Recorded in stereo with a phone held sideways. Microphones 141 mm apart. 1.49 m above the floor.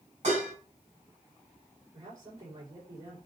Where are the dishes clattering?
55° right (ahead or behind), 5.5 m.